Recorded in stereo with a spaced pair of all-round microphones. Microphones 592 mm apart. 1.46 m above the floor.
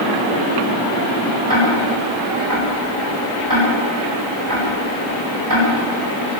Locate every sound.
1.5 s ticking: 35° right (ahead or behind), 9.5 m